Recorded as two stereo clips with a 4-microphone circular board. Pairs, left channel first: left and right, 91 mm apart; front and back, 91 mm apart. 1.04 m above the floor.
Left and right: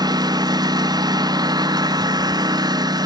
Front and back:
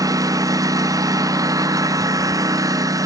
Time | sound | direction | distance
0.0 | a lawn mower | 130° right | ?